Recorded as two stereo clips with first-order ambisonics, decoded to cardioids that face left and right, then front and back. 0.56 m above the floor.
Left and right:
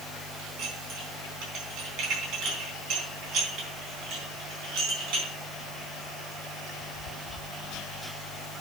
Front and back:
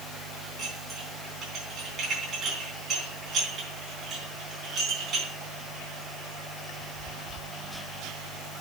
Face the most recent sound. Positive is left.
turn(degrees=-115)